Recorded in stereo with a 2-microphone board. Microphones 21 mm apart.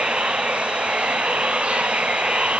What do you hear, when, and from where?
0.0 s running water: 80° right